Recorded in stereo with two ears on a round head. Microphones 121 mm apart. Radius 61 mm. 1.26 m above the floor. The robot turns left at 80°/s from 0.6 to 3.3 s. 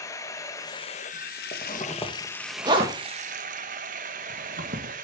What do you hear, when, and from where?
0.0 s running water: 155° left, 0.9 m; by 5.0 s 60° right, 0.9 m
1.5 s a zipper: 60° left (ahead or behind), 1.9 m; by 4.9 s 70° right (ahead or behind), 1.9 m